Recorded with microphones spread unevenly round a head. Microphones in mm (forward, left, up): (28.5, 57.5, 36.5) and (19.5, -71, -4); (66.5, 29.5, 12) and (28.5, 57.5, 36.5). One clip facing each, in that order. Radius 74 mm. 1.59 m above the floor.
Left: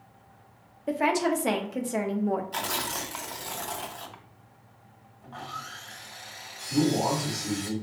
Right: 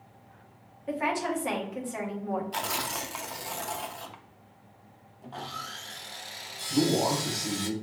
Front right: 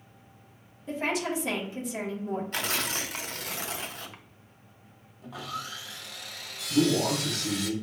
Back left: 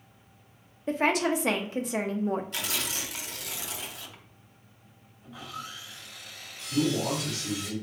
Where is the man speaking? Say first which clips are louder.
Left 1 dB, front right 3 dB; straight ahead, 1.3 m.